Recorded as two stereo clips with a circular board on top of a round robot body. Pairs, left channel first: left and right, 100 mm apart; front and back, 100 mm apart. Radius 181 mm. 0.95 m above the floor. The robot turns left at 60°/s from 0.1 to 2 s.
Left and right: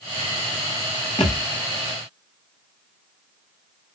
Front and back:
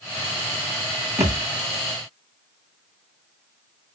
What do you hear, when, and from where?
1.2 s a thud: 120° left, 0.7 m; by 1.4 s 105° left, 0.7 m